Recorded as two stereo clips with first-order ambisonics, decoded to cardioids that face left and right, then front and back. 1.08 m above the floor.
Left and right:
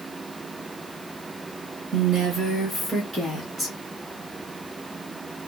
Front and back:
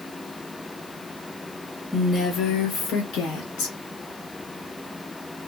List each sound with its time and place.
1.9 s a woman speaking: 95° right, 0.6 m; by 3.8 s 15° right, 1.6 m